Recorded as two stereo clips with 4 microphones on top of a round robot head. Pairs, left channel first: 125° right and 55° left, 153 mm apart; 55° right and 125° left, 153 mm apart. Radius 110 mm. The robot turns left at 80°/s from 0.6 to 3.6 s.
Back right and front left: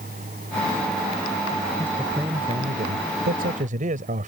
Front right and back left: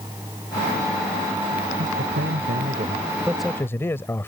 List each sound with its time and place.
1.8 s a man speaking: 165° left; by 4.3 s 20° left